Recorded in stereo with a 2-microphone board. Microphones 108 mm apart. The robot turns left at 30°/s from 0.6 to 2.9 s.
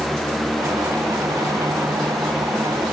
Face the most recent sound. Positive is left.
No sound to turn to.